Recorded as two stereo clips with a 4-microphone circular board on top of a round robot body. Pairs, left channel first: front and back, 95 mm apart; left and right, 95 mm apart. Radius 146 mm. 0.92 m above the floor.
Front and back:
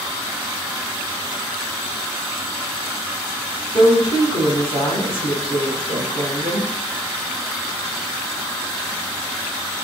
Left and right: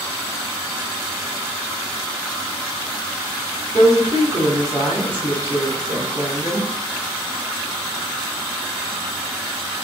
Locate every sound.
3.7 s a woman speaking: 25° right, 2.5 m